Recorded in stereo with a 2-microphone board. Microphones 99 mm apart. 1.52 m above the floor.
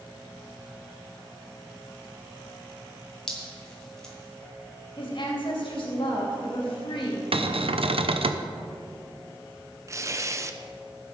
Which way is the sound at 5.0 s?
65° left (ahead or behind).